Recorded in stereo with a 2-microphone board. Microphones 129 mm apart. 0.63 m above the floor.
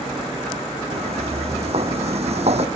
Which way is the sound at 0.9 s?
50° right (ahead or behind).